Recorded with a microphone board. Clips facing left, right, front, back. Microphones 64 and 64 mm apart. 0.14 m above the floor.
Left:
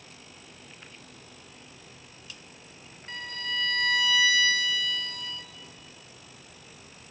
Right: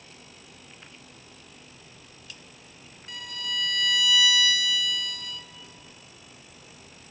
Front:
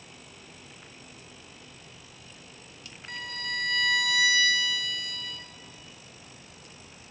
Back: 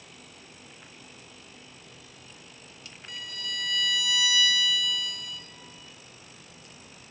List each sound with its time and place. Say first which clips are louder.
3.1 s a violin: left 1 dB, front 4 dB; 40° left, 0.9 m